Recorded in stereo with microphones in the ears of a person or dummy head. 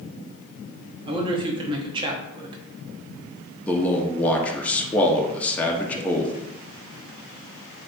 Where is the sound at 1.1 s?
25° right (ahead or behind), 0.7 m.